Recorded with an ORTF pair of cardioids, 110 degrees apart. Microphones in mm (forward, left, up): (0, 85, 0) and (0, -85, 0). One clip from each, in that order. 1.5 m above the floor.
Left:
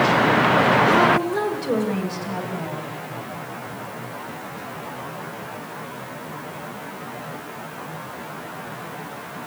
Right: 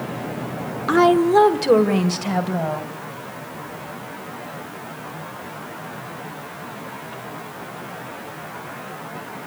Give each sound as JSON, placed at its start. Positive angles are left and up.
{"t": 0.9, "sound": "a woman speaking", "azimuth_deg": -40, "distance_m": 1.2}